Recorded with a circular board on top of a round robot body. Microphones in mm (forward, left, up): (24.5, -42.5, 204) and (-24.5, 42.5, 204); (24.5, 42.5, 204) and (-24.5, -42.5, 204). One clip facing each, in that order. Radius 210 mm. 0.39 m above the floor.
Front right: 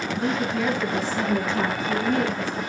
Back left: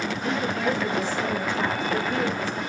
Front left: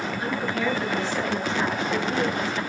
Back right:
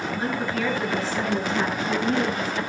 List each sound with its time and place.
0.2 s a woman speaking: 55° right, 8.5 m; by 2.6 s 70° right, 9.5 m